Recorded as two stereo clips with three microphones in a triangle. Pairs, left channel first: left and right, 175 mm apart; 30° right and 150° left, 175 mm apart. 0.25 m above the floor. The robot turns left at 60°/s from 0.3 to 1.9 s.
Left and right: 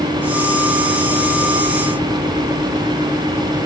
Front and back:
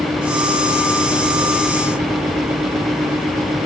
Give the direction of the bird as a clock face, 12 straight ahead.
I don't hear a bird.